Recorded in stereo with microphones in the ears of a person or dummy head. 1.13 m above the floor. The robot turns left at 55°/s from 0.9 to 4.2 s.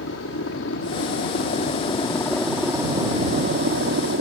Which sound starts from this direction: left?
A helicopter, at 0.0 s.